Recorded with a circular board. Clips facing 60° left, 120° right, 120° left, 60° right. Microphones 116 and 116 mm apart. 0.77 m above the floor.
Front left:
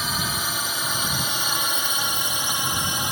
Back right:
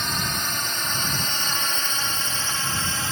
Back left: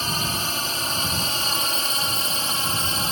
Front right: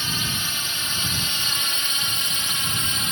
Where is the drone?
145° left; by 3.1 s 125° left.